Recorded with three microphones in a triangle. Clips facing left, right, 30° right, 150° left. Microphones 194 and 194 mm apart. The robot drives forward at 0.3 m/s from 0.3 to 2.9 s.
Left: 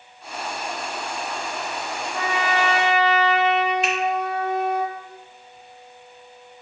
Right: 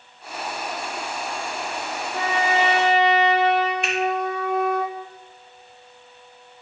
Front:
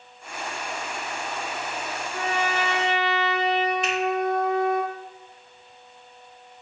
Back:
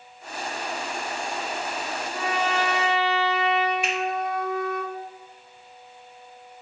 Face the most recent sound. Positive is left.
turn(degrees=-130)